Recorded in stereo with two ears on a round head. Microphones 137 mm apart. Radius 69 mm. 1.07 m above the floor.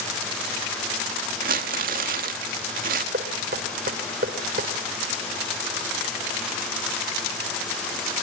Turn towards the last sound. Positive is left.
turn(degrees=-60)  # may be behind; listen again after turning